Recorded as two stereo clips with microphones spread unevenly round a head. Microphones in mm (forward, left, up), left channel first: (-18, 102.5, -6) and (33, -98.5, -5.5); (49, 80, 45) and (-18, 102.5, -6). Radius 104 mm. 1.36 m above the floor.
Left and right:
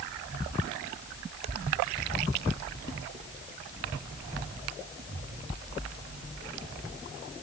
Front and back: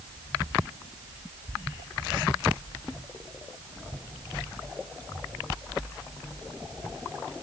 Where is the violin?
I don't hear a violin.